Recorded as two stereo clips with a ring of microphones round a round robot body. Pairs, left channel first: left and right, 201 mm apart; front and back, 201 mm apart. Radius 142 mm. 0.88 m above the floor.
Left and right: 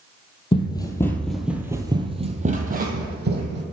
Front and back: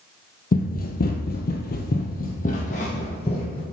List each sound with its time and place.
0.5 s running footsteps: 30° left, 1.3 m; by 3.6 s 70° right, 1.8 m